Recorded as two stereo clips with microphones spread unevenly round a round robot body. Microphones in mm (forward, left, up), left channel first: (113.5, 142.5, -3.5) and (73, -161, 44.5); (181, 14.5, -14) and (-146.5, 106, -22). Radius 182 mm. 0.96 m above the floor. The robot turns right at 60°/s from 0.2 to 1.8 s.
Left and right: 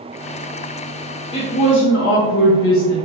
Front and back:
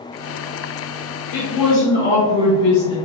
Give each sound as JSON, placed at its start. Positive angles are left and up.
{"t": 1.3, "sound": "a woman speaking", "azimuth_deg": 10, "distance_m": 0.8}